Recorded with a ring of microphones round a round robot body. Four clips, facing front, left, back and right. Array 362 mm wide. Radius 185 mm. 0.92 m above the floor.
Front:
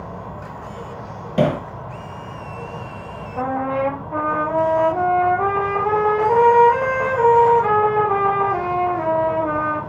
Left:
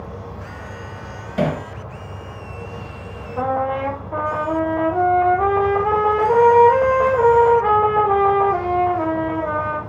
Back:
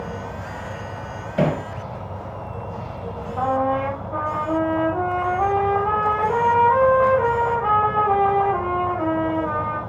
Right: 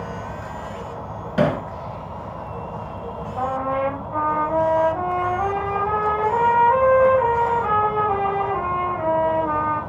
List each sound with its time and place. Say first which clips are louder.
0.0 s an insect: right 3 dB, back 1 dB; 70° right, 9 m
1.4 s hammering: right 1 dB, front 3 dB; 25° right, 3 m
3.4 s a trumpet: left 2 dB, back 1 dB; 40° left, 5.5 m